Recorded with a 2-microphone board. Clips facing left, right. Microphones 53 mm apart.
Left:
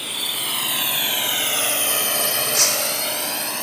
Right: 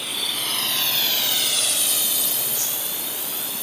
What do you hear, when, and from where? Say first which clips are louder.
0.0 s a drone: even; centre (ahead or behind); by 3.6 s 55° left (ahead or behind)
2.5 s breaking glass: left 9 dB; 70° left (ahead or behind)